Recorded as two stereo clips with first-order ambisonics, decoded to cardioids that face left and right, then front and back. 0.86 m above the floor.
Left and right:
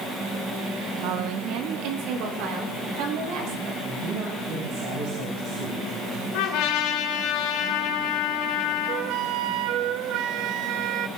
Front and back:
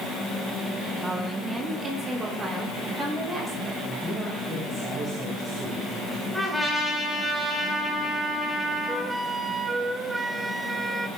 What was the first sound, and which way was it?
A woman speaking, 100° right.